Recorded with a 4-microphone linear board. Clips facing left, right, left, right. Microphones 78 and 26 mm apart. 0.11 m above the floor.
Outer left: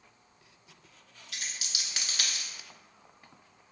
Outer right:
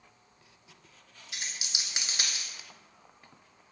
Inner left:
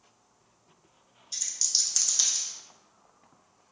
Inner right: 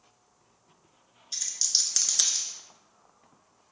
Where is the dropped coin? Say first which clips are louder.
Even, inner right 1 dB; 20° right (ahead or behind), 0.6 m.